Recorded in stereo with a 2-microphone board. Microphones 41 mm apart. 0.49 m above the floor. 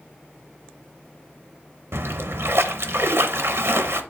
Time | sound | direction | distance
1.9 | a splash | 85° right | 0.7 m